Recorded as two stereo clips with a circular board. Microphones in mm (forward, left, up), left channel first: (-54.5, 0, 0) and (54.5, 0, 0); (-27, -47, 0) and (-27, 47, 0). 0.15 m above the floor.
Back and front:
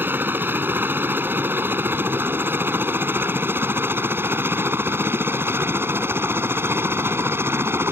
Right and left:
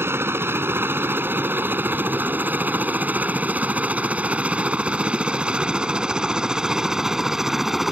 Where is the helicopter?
55° left; by 7.9 s 10° left.